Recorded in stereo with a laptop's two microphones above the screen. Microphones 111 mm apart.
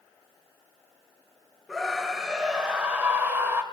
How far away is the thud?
I don't hear a thud.